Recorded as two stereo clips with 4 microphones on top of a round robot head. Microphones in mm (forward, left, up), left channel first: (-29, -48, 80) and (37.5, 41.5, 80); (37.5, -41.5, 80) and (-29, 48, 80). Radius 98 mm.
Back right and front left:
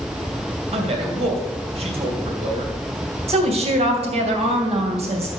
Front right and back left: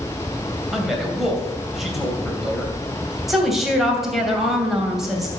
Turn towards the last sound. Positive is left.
turn(degrees=40)